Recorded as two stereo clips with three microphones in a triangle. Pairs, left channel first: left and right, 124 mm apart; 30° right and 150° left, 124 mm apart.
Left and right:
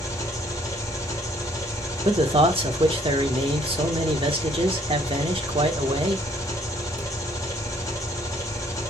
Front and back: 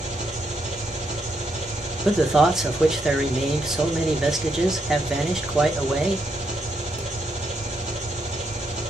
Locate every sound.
0.0 s an engine running: 150° left, 1.7 m
2.0 s a man speaking: 125° right, 1.1 m